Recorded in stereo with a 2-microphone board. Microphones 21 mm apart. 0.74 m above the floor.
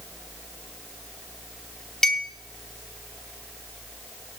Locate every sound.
2.0 s a clink: 25° left (ahead or behind), 0.8 m